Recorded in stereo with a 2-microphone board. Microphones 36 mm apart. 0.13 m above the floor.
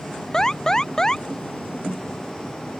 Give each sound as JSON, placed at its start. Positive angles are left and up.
{"t": 0.3, "sound": "an alarm", "side_deg": 15}